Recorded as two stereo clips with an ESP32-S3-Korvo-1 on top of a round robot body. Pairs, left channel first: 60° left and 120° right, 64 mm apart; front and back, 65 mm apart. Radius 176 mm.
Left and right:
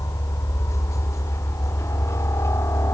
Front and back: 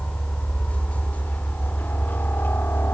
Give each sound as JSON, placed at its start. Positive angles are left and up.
{"t": 0.0, "sound": "a helicopter", "azimuth_deg": 65}